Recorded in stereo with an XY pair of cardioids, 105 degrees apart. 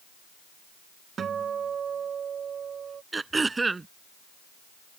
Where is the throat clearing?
25° right.